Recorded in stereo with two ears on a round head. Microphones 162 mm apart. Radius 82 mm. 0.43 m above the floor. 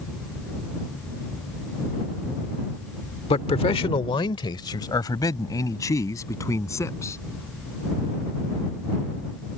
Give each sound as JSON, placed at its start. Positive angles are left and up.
{"t": 3.3, "sound": "a man speaking", "side_deg": 30}